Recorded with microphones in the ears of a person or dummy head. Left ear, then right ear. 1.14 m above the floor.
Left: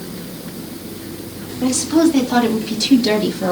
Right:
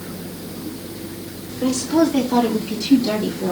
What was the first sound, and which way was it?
A woman speaking, 15° left (ahead or behind).